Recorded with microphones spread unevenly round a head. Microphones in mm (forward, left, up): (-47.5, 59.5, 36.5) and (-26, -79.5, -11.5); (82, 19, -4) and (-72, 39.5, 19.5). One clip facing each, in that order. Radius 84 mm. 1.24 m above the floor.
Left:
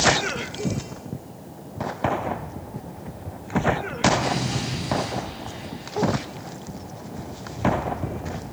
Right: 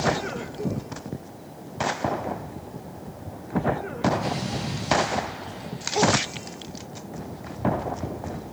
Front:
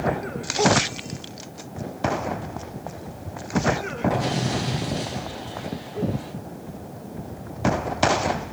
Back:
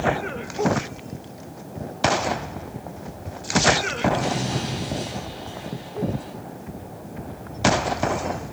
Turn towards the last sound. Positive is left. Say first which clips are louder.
# left 3 dB, even
turn(degrees=70)